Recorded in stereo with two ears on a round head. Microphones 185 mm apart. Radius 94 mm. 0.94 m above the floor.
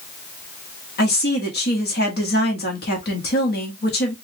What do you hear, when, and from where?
1.0 s a woman speaking: 55° left (ahead or behind), 1.6 m